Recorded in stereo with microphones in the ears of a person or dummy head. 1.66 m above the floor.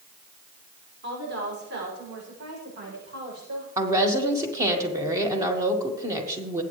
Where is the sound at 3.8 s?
25° right (ahead or behind), 1.7 m.